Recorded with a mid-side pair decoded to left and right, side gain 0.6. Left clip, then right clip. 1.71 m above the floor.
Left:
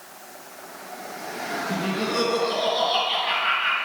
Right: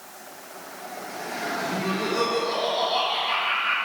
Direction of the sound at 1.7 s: 70° left.